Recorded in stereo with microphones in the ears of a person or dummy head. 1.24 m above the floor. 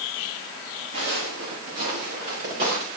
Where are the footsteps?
70° right (ahead or behind), 4 m; by 2.9 s 55° right (ahead or behind), 6 m.